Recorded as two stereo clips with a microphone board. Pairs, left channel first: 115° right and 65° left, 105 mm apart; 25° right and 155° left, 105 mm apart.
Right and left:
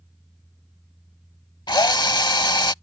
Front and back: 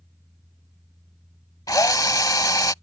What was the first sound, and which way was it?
A drill, 70° right.